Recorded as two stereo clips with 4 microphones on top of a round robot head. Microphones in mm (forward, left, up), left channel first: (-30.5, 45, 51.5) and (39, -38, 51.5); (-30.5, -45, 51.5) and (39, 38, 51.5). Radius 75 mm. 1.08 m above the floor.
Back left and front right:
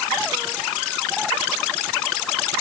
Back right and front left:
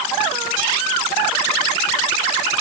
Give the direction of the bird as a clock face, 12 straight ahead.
No bird in this recording.